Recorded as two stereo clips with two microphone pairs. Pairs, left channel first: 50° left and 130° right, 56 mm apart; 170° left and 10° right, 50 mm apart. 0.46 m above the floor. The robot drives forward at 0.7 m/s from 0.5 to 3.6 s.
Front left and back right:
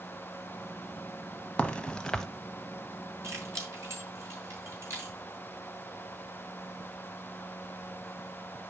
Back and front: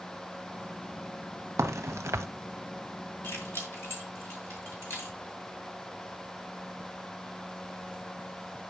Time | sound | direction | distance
1.6 | a crack | 20° right | 1.1 m
3.2 | keys jangling | 155° right | 4 m